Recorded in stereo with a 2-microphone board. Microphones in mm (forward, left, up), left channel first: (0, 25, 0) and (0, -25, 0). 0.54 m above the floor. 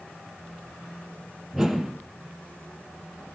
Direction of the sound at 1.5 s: Centre (ahead or behind).